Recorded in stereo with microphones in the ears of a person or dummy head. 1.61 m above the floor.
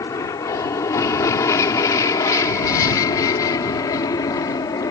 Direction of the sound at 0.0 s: 20° left (ahead or behind).